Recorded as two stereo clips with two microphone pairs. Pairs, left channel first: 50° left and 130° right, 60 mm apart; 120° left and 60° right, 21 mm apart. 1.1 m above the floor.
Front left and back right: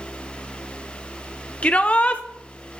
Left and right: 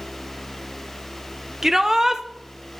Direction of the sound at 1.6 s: 5° left.